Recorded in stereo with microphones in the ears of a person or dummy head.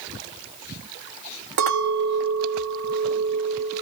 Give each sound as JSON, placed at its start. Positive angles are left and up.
{"t": 1.6, "sound": "a clink", "side_deg": -60, "distance_m": 1.7}